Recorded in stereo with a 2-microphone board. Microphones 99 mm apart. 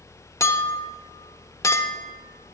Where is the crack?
No crack in this recording.